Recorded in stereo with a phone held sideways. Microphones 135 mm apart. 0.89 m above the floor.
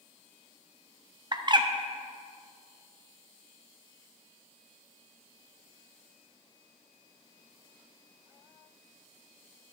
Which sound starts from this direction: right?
A bird, at 1.3 s.